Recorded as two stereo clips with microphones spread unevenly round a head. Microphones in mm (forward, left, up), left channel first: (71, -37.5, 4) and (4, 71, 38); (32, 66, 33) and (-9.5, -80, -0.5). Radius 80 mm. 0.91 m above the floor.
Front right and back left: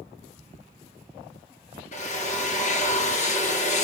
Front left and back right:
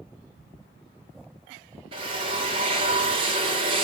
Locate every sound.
1.9 s a drill: 55° right, 2 m